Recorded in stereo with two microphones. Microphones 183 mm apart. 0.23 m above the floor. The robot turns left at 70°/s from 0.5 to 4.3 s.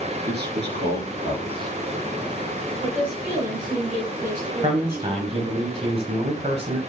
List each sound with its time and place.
0.3 s a man speaking: 75° right, 3 m; by 1.7 s 160° right, 3 m
2.8 s a woman speaking: 25° left, 1.9 m; by 5.3 s 75° right, 1.9 m
4.6 s a man speaking: 35° right (ahead or behind), 1.2 m